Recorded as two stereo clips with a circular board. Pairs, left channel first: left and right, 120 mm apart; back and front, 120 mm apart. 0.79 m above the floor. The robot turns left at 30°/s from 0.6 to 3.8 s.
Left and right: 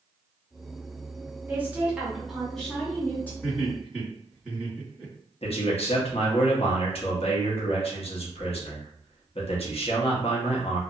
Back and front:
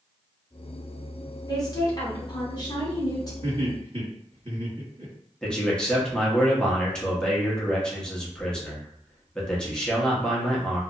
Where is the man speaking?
100° left, 0.8 m.